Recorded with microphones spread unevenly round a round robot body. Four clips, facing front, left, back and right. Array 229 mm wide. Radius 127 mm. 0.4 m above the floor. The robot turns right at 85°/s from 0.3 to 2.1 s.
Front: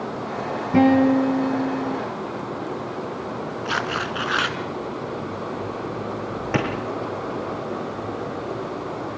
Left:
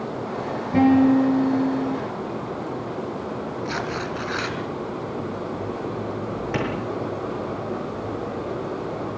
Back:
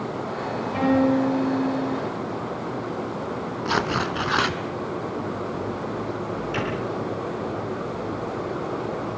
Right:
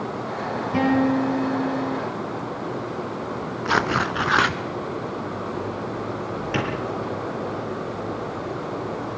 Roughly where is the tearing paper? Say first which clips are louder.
Right 9 dB, back 3 dB; right.